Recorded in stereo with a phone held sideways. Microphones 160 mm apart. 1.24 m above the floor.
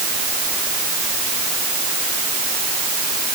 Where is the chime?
I don't hear a chime.